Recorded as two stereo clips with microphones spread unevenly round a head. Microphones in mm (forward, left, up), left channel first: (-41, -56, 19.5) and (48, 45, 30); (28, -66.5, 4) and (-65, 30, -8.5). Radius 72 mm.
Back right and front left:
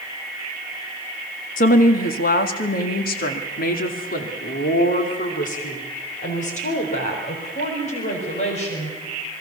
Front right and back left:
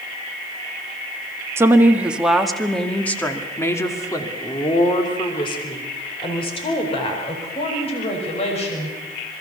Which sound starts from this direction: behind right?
A woman speaking, at 1.6 s.